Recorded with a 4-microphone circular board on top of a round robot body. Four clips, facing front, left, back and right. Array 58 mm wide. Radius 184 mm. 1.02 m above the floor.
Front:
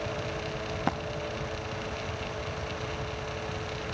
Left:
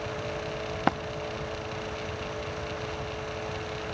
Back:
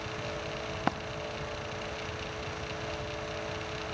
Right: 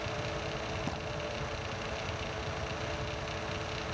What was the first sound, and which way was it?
A dropped coin, 95° left.